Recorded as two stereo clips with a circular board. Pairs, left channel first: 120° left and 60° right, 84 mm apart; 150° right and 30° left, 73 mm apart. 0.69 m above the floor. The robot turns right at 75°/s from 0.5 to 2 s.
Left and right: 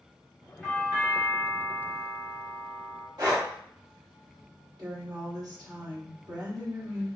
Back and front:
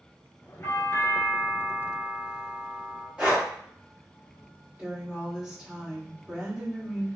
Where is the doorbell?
165° right, 1.9 m; by 3.1 s 60° right, 1.9 m.